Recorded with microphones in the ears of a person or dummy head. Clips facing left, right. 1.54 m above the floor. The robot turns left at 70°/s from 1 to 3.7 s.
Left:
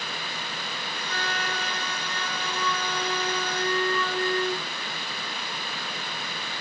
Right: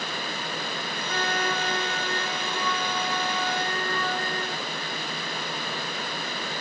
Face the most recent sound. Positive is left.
turn(degrees=115)